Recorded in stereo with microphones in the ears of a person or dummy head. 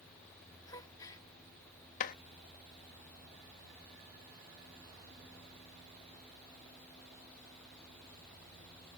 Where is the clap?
45° left (ahead or behind).